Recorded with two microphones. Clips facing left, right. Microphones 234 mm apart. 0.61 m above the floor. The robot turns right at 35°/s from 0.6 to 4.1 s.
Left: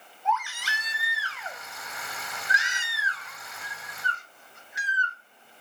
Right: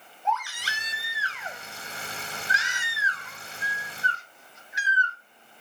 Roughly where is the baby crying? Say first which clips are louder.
Left 1 dB; ahead right.